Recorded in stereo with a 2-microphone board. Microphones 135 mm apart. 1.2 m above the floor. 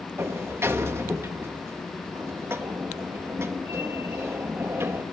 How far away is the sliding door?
About 1.3 m.